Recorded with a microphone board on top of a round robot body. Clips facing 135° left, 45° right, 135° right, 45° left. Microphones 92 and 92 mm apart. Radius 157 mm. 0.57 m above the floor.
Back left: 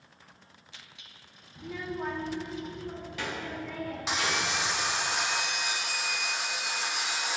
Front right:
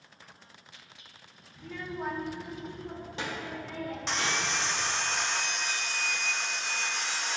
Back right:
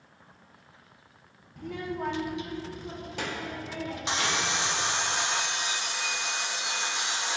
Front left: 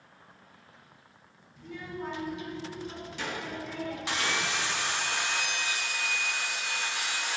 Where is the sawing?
155° right, 0.6 m.